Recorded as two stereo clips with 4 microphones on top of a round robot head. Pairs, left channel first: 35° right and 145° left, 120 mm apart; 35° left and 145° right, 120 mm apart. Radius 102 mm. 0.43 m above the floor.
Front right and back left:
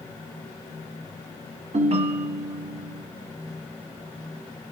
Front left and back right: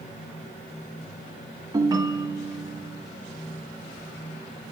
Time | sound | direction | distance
1.7 | a ringtone | 160° left | 0.8 m